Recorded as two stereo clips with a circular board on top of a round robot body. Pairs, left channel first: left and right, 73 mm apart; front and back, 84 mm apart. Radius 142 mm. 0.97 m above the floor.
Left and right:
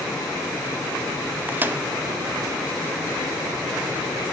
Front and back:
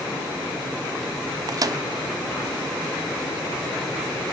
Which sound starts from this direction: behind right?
A microwave, at 1.5 s.